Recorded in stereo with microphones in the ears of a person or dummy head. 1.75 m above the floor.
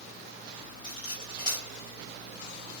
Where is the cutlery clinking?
25° right (ahead or behind), 4.5 m.